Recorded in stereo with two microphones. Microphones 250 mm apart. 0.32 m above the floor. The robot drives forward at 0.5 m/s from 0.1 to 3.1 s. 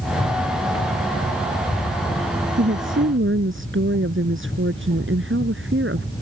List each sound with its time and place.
2.6 s a woman speaking: 50° right (ahead or behind); by 6.1 s 55° right (ahead or behind)